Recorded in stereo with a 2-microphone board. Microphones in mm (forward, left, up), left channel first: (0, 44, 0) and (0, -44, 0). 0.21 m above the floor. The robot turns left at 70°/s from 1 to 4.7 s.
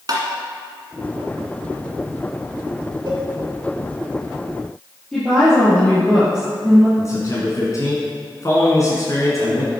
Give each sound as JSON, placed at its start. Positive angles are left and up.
{"t": 0.1, "sound": "tapping", "side_deg": -50, "distance_m": 1.8}
{"t": 3.1, "sound": "a cowbell", "side_deg": -55, "distance_m": 2.0}
{"t": 5.1, "sound": "a woman speaking", "side_deg": 10, "distance_m": 4.0}
{"t": 7.0, "sound": "a man speaking", "side_deg": 40, "distance_m": 2.0}